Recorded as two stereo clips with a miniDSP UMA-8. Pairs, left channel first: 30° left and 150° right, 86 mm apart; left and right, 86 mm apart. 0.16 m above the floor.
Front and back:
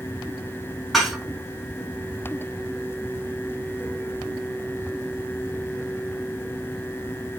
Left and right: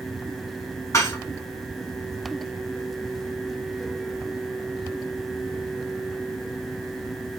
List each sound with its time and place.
0.9 s dishes clattering: 120° left, 1.0 m